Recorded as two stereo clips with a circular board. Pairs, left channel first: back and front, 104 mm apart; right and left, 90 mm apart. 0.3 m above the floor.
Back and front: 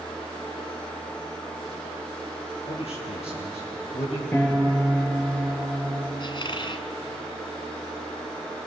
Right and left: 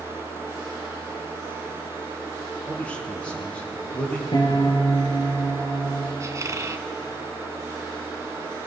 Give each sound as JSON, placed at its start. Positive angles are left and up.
{"t": 2.7, "sound": "a man speaking", "azimuth_deg": -165, "distance_m": 7.5}
{"t": 4.3, "sound": "a piano", "azimuth_deg": -110, "distance_m": 5.0}
{"t": 6.2, "sound": "a squeak", "azimuth_deg": 145, "distance_m": 1.2}